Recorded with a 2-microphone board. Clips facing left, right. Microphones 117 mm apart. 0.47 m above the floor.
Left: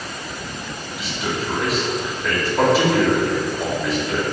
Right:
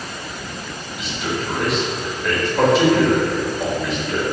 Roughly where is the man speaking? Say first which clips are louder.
Right 1 dB; centre.